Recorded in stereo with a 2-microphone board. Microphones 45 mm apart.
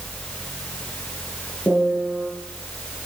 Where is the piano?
10° left (ahead or behind), 6.5 m.